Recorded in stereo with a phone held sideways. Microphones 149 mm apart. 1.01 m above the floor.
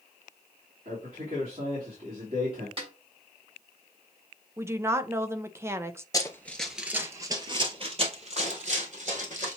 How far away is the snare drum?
About 3 m.